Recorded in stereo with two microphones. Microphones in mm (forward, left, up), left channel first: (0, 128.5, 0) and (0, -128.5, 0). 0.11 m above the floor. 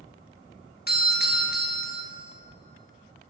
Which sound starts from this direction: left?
A doorbell, at 0.9 s.